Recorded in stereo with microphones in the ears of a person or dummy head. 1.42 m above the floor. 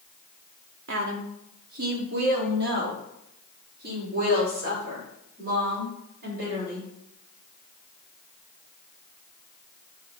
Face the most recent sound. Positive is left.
turn(degrees=-50)  # may be behind; listen again after turning